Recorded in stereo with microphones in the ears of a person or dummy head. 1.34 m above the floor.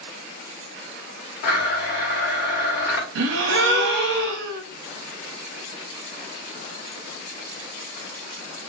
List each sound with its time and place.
1.4 s a blender: 55° left (ahead or behind), 0.9 m
3.1 s a gasp: 70° right (ahead or behind), 0.5 m